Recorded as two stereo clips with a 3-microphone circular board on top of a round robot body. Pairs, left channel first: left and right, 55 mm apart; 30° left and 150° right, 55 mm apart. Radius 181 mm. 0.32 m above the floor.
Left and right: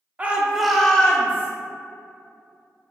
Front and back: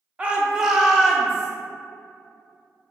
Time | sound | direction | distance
0.2 | a shout | 110° right | 0.9 m